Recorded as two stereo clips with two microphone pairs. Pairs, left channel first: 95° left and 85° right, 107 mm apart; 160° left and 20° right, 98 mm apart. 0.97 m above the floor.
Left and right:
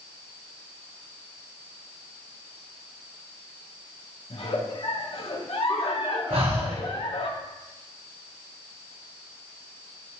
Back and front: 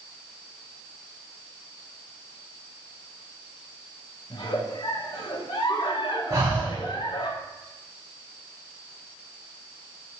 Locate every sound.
4.3 s a giggle: 120° left, 1.1 m
6.3 s breathing: 75° right, 2.5 m